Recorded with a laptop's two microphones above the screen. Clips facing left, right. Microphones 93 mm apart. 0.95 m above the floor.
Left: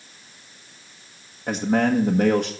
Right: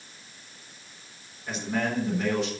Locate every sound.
1.5 s a man speaking: 50° left (ahead or behind), 1.2 m